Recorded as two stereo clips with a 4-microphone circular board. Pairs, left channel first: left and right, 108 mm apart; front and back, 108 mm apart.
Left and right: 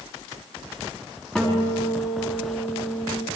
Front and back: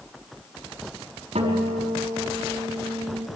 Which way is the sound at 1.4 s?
175° left.